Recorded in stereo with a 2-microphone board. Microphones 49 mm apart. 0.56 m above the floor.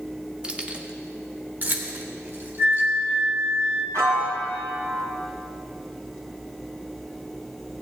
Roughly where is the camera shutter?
No camera shutter in this recording.